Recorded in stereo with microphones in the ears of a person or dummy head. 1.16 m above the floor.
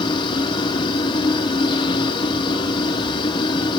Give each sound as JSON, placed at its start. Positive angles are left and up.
{"t": 0.0, "sound": "a machine running", "side_deg": 25, "distance_m": 1.1}